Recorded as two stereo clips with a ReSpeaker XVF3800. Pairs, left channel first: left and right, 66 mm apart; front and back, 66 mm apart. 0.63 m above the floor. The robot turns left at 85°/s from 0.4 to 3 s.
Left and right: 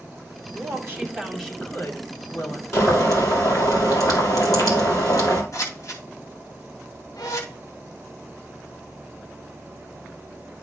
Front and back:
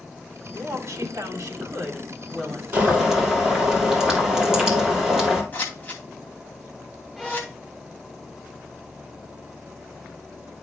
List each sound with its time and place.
0.5 s a woman speaking: 110° right, 3 m; by 2.6 s 70° left, 3 m
2.7 s boiling: 125° left, 3 m; by 5.4 s 100° left, 3 m
5.5 s scissors: 60° left, 2.5 m
7.2 s a violin: 95° left, 0.7 m